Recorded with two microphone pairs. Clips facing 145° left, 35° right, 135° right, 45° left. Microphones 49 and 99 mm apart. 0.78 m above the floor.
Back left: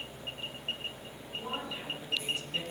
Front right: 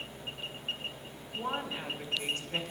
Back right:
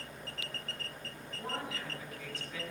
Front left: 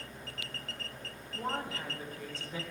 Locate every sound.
1.3 s a woman speaking: 10° left, 4.5 m; by 2.6 s 10° right, 4.5 m